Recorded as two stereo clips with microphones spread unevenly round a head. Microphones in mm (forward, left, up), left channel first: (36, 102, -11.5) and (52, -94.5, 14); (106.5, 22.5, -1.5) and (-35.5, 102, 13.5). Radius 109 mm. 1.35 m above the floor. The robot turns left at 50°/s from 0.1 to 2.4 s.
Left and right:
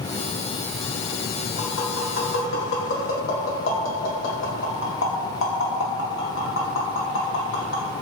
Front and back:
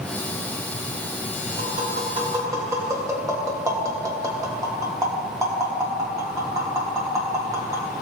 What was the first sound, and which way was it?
Tapping, 120° left.